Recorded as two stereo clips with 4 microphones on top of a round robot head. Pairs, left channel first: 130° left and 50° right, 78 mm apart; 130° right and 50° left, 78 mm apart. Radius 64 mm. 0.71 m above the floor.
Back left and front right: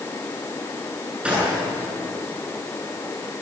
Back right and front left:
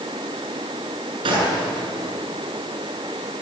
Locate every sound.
1.2 s a gunshot: 30° left, 8.5 m